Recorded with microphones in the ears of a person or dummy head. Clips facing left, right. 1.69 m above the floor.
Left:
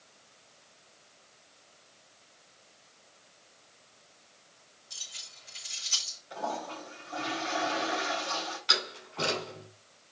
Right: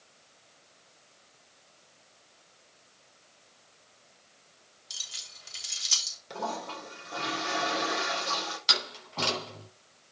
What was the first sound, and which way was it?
Keys jangling, 70° right (ahead or behind).